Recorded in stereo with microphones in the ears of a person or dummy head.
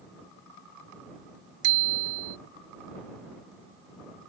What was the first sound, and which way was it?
A bicycle bell, 60° right (ahead or behind).